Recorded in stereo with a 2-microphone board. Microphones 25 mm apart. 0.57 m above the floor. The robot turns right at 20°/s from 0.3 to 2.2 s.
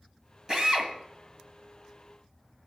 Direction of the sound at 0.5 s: 30° right (ahead or behind).